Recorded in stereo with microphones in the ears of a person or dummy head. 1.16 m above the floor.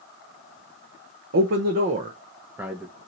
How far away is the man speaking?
About 0.9 m.